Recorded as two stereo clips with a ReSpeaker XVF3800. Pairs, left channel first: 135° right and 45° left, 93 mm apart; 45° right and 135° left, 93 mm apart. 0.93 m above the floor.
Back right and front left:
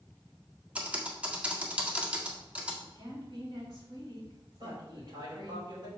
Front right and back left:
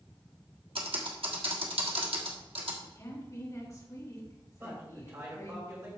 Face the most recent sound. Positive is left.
turn(degrees=80)